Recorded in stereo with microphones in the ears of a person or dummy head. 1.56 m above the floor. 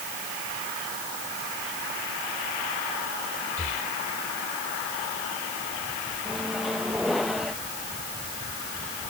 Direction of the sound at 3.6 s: 40° left (ahead or behind).